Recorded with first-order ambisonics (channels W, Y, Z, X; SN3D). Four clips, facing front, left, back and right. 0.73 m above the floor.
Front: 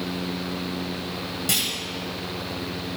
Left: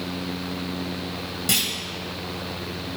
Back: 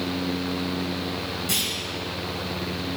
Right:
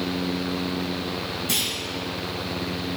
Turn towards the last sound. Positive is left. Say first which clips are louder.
# left 3 dB, front 2 dB
turn(degrees=60)